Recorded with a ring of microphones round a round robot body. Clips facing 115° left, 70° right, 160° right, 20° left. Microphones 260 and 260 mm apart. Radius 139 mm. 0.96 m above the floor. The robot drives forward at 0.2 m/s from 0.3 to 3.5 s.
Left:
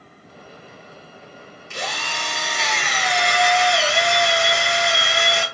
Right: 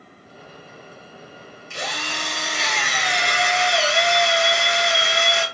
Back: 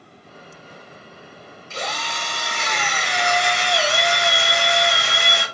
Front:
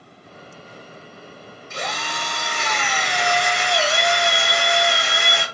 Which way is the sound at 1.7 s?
145° left.